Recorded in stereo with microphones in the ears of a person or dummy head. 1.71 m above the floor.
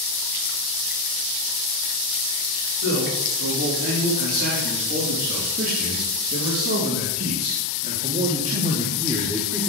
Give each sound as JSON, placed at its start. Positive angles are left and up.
{"t": 2.8, "sound": "a man speaking", "side_deg": -70, "distance_m": 5.0}